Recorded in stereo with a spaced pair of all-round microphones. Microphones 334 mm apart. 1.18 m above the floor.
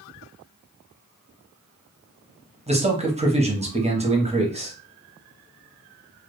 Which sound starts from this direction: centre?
A man speaking, at 2.7 s.